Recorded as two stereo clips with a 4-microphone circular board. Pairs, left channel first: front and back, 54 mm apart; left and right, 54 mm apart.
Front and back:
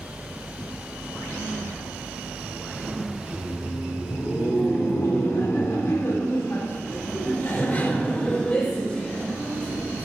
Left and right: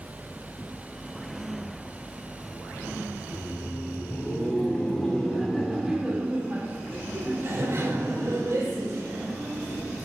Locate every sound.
3.2 s laughter: 45° left, 1.7 m; by 9.8 s 75° right, 2.5 m